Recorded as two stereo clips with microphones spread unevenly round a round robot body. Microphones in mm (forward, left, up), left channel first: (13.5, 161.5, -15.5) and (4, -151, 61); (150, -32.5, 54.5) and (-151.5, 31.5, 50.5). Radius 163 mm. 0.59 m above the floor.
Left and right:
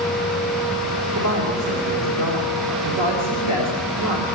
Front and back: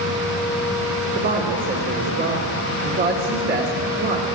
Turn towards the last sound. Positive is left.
turn(degrees=-135)